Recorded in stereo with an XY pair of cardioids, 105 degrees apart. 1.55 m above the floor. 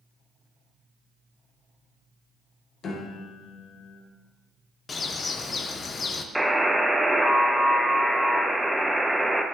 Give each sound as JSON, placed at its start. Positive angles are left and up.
{"t": 2.8, "sound": "a piano", "azimuth_deg": 55, "distance_m": 1.2}
{"t": 4.9, "sound": "a bird", "azimuth_deg": 40, "distance_m": 0.6}
{"t": 6.3, "sound": "a buzzer", "azimuth_deg": 0, "distance_m": 0.7}